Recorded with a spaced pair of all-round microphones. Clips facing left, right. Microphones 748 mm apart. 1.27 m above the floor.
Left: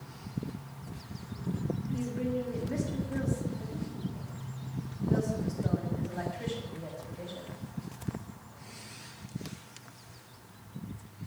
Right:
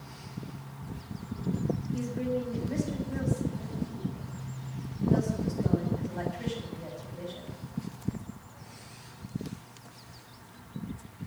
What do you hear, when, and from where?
1.9 s a woman speaking: 60° right (ahead or behind), 7 m